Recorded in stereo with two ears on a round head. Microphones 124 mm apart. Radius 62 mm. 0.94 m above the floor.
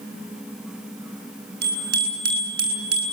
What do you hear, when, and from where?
1.6 s a bicycle bell: 70° right (ahead or behind), 8 m; by 3.1 s 65° right (ahead or behind), 8 m